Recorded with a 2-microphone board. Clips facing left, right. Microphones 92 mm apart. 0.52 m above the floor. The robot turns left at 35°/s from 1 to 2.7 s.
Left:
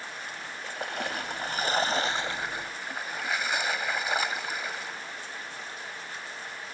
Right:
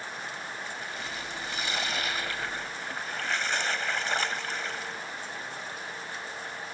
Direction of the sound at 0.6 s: 70° left.